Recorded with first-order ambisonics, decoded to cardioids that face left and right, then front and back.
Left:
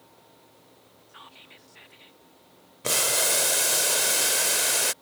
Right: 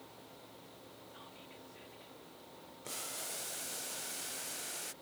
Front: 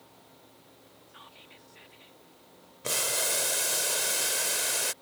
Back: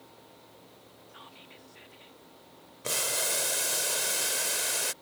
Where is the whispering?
95° left.